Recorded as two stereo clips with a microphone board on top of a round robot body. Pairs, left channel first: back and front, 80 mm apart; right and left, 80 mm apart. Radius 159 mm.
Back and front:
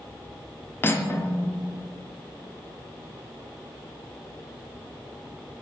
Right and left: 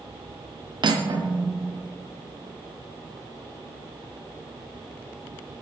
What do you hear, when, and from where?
0.8 s cutlery clinking: 115° left, 0.7 m